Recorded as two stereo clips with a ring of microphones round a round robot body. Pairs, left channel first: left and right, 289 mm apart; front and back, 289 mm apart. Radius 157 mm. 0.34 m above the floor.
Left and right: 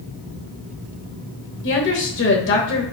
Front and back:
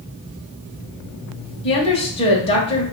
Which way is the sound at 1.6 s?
65° left.